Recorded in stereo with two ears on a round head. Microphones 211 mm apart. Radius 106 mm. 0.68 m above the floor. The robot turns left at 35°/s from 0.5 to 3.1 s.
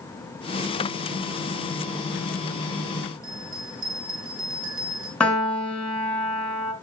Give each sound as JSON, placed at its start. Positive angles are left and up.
{"t": 3.2, "sound": "a bell", "side_deg": -60, "distance_m": 4.0}
{"t": 5.2, "sound": "a piano", "side_deg": 5, "distance_m": 2.0}